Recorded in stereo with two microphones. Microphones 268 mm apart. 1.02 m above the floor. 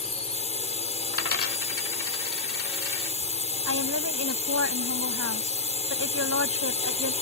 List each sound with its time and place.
0.0 s a drone: 25° left (ahead or behind)
1.1 s a dropped coin: 55° left (ahead or behind)
3.7 s a woman speaking: 60° right (ahead or behind)